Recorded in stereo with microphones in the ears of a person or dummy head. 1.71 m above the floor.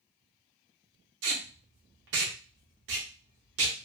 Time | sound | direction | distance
1.2 | tape being pulled | 80° right | 1.1 m